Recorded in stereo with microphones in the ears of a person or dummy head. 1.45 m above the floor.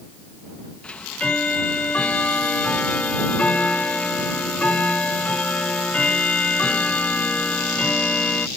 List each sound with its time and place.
0.8 s ticking: 5° left (ahead or behind)